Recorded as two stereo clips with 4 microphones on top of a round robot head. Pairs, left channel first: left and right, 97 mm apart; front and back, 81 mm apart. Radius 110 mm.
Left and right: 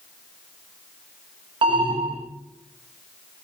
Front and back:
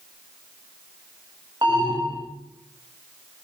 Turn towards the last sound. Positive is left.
turn(degrees=-120)